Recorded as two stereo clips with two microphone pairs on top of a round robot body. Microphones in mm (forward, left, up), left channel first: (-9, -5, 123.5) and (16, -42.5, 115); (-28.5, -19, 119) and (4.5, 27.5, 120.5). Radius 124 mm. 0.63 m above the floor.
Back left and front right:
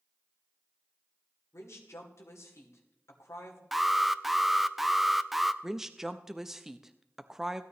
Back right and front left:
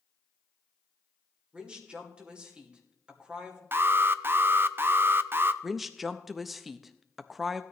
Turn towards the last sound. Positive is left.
turn(degrees=-35)